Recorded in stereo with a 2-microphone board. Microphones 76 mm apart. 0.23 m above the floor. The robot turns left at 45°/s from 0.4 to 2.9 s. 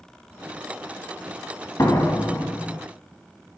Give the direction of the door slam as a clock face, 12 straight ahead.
10 o'clock.